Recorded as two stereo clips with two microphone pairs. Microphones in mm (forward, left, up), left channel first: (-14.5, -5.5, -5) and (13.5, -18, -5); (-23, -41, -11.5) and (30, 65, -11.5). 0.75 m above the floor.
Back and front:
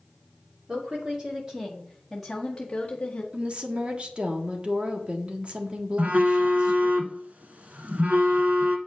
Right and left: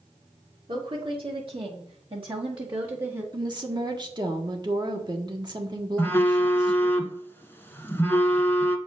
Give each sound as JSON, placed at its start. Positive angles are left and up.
{"t": 0.7, "sound": "a woman speaking", "azimuth_deg": 25, "distance_m": 2.5}
{"t": 3.3, "sound": "a woman speaking", "azimuth_deg": 20, "distance_m": 1.4}
{"t": 6.0, "sound": "a phone buzzing", "azimuth_deg": -45, "distance_m": 1.2}